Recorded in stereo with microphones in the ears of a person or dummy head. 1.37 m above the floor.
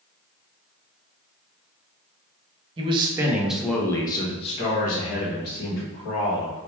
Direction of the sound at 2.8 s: 30° right (ahead or behind).